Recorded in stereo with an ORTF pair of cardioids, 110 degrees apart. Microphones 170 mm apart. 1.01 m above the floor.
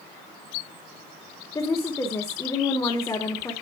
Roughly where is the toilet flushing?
I don't hear a toilet flushing.